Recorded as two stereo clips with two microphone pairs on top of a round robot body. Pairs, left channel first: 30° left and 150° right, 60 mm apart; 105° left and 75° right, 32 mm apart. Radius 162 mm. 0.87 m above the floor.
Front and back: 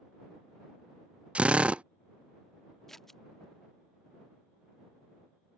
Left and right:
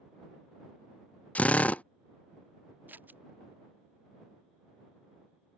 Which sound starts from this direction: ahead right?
Scissors, at 2.9 s.